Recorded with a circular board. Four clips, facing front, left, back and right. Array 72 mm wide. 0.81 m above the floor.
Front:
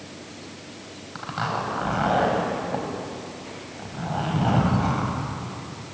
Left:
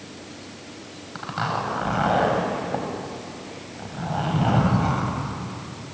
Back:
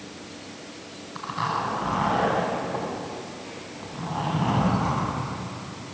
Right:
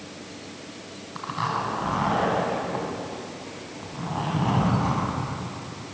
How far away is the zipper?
About 5.5 m.